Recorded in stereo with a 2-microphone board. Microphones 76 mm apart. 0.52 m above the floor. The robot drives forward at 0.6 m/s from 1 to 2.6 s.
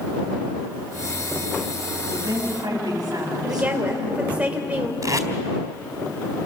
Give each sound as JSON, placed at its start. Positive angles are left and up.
{"t": 2.1, "sound": "a woman speaking", "side_deg": -65, "distance_m": 4.0}
{"t": 3.4, "sound": "a woman speaking", "side_deg": -20, "distance_m": 2.0}
{"t": 5.0, "sound": "tape being pulled", "side_deg": -50, "distance_m": 1.5}